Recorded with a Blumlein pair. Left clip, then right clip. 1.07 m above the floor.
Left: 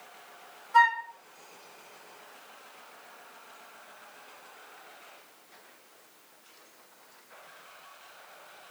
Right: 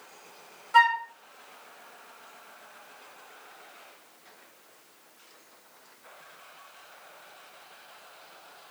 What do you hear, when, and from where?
0.7 s a flute: 25° right, 0.9 m